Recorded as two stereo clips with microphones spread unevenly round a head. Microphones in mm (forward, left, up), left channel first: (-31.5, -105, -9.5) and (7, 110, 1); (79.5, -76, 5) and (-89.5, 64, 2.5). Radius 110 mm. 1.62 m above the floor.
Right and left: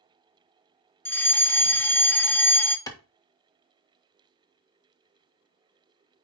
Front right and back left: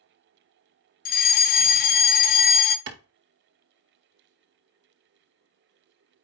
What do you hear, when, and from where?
1.1 s a fire alarm: 30° right, 0.6 m
2.9 s a clap: 175° right, 1.4 m